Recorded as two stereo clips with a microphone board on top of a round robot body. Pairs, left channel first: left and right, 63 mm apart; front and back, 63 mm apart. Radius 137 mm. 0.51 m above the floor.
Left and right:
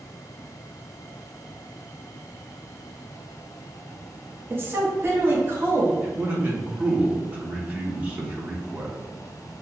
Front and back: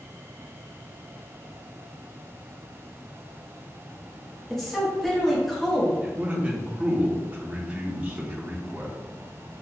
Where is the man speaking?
130° right, 1.0 m.